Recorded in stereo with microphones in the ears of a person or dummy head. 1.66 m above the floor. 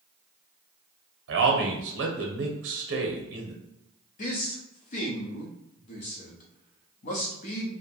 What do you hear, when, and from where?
1.3 s a man speaking: 60° right (ahead or behind), 0.8 m
4.2 s a man speaking: 40° left (ahead or behind), 0.7 m